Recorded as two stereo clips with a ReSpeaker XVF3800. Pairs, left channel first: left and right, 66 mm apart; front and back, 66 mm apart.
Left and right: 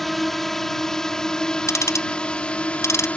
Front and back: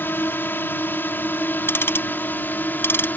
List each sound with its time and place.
0.0 s a drone: 5° left; by 3.2 s 35° left
1.7 s ticking: 55° left